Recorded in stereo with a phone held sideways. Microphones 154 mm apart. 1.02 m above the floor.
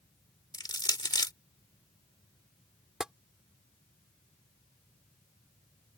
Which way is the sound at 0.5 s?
25° left (ahead or behind).